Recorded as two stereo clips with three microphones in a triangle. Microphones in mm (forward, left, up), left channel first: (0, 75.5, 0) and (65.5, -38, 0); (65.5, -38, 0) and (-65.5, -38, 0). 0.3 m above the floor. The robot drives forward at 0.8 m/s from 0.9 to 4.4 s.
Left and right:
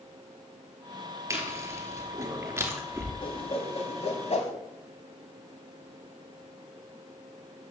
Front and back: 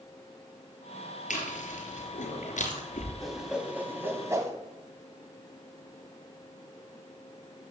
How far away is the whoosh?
About 2 m.